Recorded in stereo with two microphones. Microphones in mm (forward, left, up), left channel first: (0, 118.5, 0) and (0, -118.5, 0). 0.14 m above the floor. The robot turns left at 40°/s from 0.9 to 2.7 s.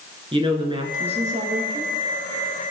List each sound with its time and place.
0.3 s a woman speaking: 30° right, 1.5 m; by 1.9 s 75° right, 1.5 m